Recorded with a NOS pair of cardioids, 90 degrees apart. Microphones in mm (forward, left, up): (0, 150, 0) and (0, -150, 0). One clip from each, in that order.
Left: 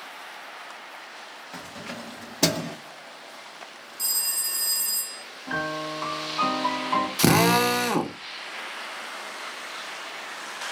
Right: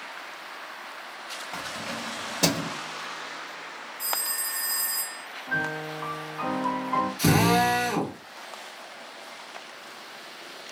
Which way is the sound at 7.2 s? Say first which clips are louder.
Left 2 dB; 65° left.